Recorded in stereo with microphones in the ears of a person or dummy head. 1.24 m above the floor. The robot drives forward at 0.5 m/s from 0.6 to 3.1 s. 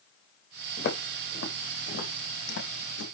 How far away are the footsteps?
About 5 m.